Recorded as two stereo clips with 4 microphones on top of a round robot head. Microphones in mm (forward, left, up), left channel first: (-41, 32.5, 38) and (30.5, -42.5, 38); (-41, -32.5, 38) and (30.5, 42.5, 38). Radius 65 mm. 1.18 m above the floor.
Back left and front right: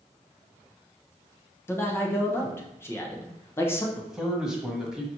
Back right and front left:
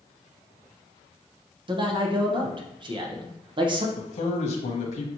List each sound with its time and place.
1.7 s a man speaking: 70° left, 0.8 m
4.0 s a man speaking: 130° right, 0.9 m